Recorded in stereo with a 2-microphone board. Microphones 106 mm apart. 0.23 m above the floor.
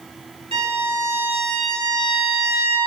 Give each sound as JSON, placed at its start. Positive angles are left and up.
{"t": 0.5, "sound": "a violin", "side_deg": -70, "distance_m": 5.0}